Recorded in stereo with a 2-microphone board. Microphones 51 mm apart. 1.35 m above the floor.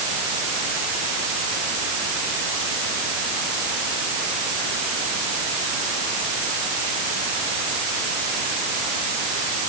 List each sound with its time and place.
Only background noise.